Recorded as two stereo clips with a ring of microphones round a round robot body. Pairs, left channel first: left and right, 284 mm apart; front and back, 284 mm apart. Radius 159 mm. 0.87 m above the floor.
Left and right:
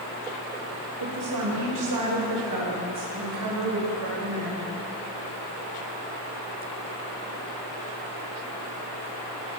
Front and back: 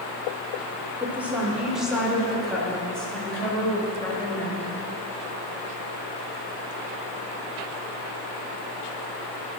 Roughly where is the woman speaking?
Right.